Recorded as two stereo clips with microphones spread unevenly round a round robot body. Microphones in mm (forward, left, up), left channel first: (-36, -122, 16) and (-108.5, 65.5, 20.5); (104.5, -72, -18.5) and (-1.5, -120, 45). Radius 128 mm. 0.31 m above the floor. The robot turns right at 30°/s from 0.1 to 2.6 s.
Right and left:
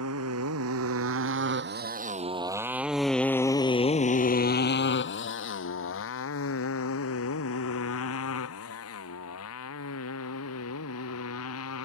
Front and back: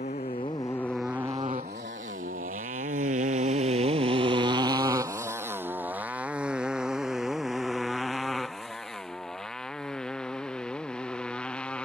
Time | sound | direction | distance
0.0 | a motorcycle | 80° left | ?